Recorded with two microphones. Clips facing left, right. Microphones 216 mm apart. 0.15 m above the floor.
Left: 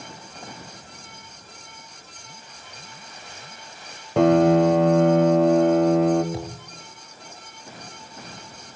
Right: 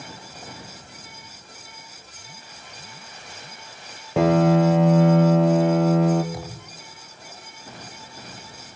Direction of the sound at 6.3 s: 25° left (ahead or behind).